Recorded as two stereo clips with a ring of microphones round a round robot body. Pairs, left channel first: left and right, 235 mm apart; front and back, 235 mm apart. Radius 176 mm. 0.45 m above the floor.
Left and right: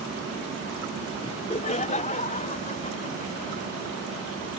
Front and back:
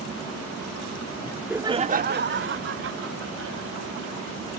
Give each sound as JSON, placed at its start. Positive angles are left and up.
{"t": 1.2, "sound": "laughter", "azimuth_deg": 45}